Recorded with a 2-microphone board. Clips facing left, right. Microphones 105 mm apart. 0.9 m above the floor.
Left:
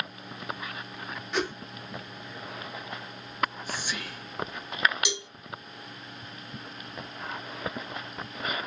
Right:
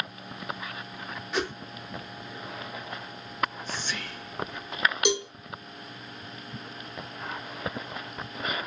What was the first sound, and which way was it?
A whoosh, centre (ahead or behind).